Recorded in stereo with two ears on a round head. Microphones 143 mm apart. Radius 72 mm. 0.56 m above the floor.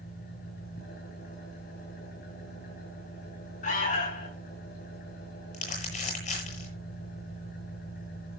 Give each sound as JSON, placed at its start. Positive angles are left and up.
{"t": 0.0, "sound": "an engine running", "side_deg": 65, "distance_m": 10.0}
{"t": 3.6, "sound": "an alarm", "side_deg": 50, "distance_m": 9.0}
{"t": 5.5, "sound": "crumpling", "side_deg": 50, "distance_m": 9.5}